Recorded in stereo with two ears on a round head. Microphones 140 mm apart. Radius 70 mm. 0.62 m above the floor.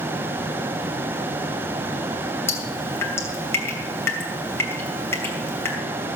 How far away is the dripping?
About 2.5 m.